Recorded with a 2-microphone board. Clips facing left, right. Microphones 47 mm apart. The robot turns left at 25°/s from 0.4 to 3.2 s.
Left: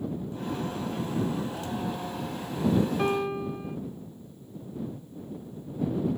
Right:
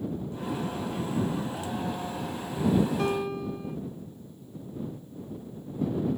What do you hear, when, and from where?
3.0 s a piano: 20° left (ahead or behind)